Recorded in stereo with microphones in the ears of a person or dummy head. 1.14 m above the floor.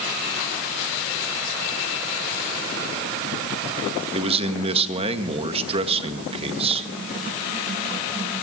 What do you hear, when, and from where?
4.1 s a man speaking: 30° right (ahead or behind), 1.7 m